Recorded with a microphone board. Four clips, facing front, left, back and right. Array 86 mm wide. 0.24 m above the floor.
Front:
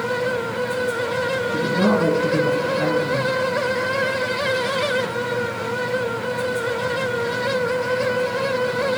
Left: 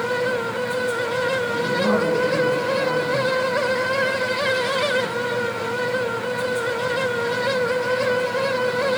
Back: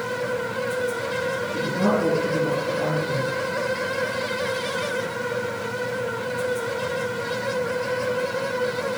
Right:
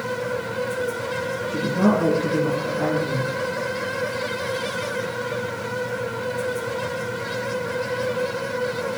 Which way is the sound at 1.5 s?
30° right.